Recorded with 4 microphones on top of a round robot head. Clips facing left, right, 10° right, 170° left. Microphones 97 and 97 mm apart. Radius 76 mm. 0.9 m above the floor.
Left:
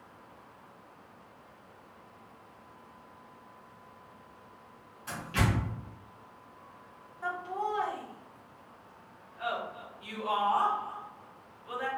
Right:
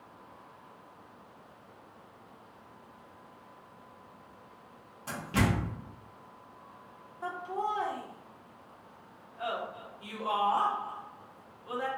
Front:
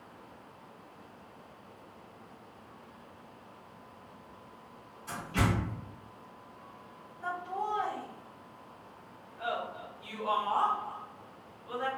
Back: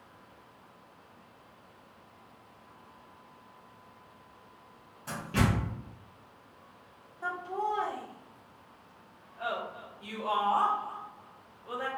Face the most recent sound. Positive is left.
turn(degrees=-140)